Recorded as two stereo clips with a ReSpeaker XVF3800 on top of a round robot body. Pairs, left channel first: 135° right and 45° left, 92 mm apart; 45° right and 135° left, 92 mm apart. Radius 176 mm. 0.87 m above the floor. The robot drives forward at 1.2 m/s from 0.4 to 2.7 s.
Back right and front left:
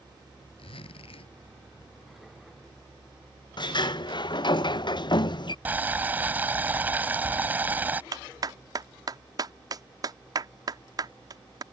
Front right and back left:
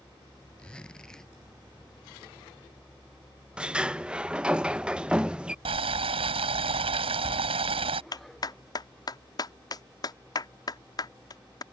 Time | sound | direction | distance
0.6 | a zipper | 125° right | ?
3.6 | a sliding door | 150° right | ?
5.7 | boiling | 115° left | ?
8.1 | a clap | straight ahead | ?